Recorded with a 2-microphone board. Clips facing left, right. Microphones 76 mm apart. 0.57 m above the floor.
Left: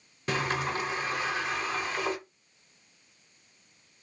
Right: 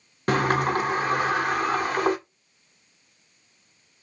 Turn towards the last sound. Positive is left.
turn(degrees=-55)  # may be behind; listen again after turning